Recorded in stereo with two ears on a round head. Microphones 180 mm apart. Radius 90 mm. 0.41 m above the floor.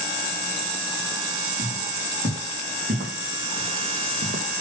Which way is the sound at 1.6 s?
40° right (ahead or behind).